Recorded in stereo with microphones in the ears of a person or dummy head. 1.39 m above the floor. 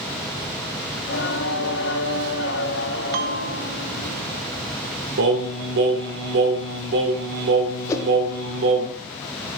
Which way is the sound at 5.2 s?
55° right (ahead or behind).